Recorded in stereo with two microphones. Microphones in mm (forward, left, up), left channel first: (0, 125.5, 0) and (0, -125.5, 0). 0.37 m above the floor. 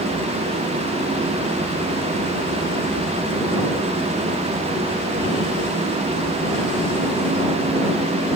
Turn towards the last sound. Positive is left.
No sound to turn to.